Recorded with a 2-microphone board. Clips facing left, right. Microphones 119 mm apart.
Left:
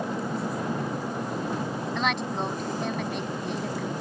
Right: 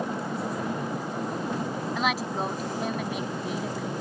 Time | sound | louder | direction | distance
1.9 | a woman speaking | even | 5° right (ahead or behind) | ?